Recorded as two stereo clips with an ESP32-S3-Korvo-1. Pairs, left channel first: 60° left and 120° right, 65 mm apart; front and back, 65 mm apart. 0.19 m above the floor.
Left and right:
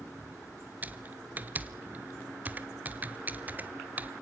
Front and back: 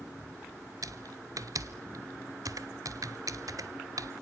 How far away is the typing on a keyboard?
About 0.8 m.